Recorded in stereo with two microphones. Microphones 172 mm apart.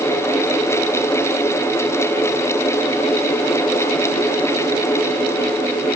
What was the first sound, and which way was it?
Only background noise.